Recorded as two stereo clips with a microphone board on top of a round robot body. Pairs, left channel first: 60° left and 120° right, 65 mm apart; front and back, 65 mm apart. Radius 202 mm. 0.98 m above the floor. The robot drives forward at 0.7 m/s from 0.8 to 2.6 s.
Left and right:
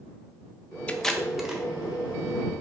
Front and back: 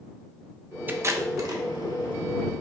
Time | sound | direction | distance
0.9 | tape being pulled | 125° left | 0.5 m